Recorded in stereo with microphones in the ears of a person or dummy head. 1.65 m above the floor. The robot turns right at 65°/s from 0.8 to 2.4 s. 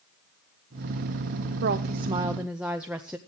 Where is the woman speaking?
60° right, 0.9 m; by 3.2 s 5° right, 0.9 m.